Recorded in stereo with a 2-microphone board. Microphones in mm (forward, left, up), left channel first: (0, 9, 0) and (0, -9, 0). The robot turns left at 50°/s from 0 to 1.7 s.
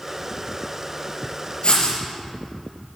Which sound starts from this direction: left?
Writing, at 1.6 s.